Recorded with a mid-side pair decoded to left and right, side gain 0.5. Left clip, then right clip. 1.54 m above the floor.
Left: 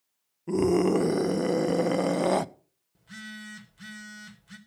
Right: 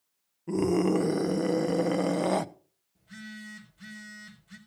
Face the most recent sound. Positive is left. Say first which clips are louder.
# left 3 dB
turn(degrees=55)